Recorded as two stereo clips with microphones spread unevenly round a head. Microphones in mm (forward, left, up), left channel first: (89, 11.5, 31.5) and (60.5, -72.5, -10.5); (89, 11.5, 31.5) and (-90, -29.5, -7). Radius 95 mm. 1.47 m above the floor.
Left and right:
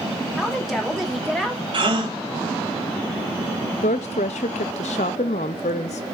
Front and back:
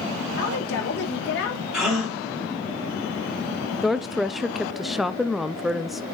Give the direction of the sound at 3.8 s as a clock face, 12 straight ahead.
8 o'clock.